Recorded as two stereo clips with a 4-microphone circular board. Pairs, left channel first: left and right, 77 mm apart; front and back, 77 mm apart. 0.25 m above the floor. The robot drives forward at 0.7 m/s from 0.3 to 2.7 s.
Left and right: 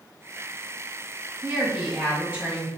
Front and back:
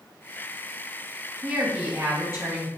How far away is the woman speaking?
About 1.6 m.